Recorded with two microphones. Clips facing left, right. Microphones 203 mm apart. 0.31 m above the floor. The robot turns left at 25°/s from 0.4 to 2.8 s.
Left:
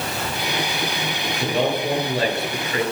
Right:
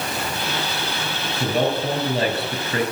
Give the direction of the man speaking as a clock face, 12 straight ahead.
12 o'clock.